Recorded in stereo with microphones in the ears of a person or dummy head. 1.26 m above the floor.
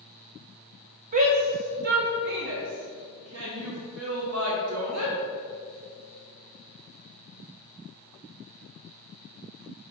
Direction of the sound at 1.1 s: 40° right (ahead or behind).